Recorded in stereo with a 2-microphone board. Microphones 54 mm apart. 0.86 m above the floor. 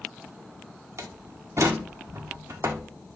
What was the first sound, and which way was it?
A door slam, 65° right (ahead or behind).